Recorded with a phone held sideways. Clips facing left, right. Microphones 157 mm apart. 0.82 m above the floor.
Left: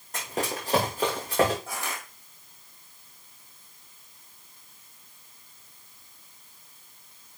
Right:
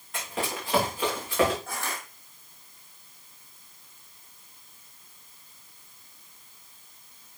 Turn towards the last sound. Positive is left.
turn(degrees=15)  # may be behind; listen again after turning